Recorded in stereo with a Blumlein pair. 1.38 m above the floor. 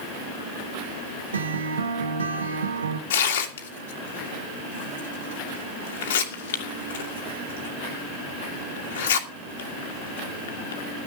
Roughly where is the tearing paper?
Ahead left.